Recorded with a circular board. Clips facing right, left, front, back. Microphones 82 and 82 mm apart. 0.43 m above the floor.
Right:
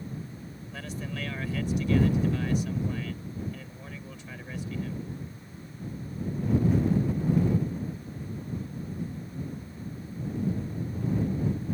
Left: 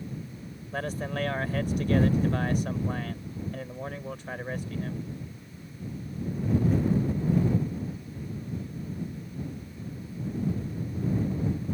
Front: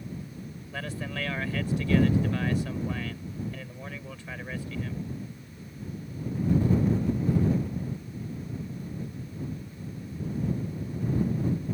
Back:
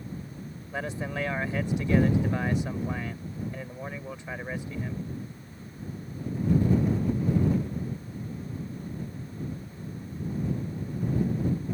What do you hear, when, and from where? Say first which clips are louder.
0.7 s a man speaking: left 6 dB, back 3 dB; 115° left